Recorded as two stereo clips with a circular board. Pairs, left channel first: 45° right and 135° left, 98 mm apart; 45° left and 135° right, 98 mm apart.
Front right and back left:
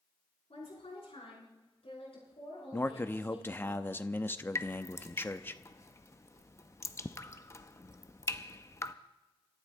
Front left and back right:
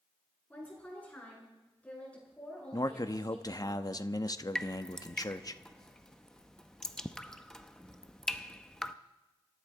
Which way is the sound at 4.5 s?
35° right.